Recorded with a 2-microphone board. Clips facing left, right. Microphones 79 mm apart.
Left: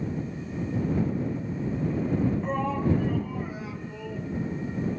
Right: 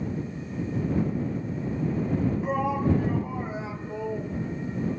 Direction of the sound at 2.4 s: 5° right (ahead or behind).